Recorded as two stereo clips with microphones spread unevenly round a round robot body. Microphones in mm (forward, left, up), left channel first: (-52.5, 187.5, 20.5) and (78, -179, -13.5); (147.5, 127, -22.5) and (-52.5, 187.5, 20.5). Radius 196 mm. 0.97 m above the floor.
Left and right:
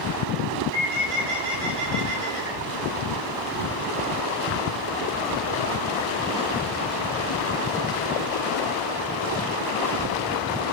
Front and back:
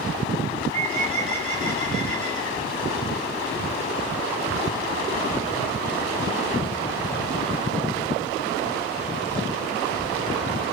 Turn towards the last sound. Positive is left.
turn(degrees=-50)